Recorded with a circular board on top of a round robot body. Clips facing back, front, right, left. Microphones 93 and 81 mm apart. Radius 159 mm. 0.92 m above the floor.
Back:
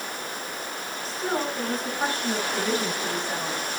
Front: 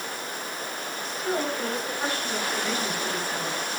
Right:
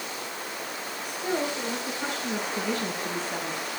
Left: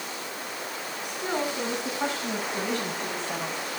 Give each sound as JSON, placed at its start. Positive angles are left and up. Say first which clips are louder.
{"t": 1.1, "sound": "a woman speaking", "louder": "even, right 1 dB", "azimuth_deg": 120, "distance_m": 9.5}